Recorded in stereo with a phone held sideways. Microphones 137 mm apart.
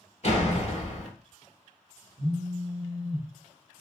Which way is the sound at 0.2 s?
50° left (ahead or behind).